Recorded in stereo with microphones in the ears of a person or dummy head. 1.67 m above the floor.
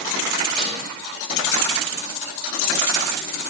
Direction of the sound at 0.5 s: Centre (ahead or behind).